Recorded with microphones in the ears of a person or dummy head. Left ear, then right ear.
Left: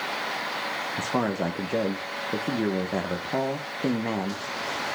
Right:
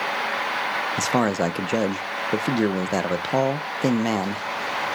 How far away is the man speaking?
About 0.7 m.